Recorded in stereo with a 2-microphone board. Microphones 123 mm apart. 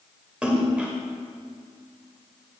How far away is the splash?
About 1.5 m.